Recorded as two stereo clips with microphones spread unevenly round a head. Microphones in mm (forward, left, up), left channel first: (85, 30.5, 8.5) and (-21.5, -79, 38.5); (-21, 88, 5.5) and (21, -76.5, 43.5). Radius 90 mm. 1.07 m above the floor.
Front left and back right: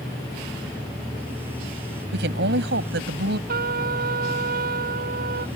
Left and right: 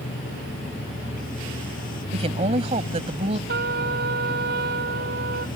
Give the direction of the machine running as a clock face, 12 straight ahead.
7 o'clock.